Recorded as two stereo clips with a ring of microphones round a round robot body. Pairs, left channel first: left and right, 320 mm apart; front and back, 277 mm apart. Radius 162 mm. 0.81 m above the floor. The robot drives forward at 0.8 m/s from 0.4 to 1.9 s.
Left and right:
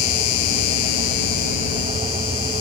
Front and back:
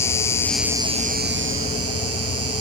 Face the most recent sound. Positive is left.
turn(degrees=140)